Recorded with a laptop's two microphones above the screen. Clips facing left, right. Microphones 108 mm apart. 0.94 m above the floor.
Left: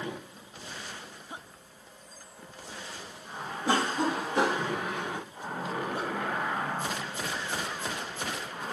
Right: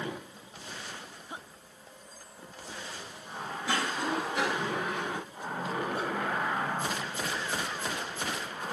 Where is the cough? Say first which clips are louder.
Left 5 dB; 35° left (ahead or behind), 1.2 m.